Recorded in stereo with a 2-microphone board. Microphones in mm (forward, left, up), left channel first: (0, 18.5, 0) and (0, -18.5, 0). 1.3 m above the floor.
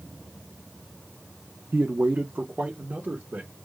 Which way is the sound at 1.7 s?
70° right (ahead or behind).